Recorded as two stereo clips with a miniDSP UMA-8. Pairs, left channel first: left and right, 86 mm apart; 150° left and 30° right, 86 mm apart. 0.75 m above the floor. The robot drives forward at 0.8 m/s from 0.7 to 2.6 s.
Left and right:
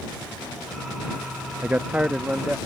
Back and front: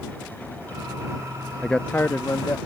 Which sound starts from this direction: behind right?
A man speaking, at 1.6 s.